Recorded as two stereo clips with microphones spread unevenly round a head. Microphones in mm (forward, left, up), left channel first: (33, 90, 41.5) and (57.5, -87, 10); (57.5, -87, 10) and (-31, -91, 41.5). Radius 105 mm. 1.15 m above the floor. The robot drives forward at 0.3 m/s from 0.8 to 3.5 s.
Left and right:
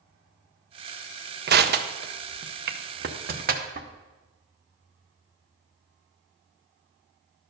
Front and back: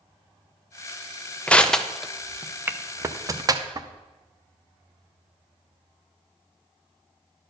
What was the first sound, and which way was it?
Crushing, 65° right.